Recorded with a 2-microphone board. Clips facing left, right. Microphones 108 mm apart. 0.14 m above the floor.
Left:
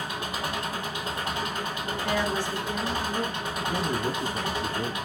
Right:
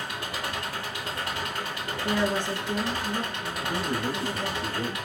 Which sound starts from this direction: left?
An engine running, at 0.0 s.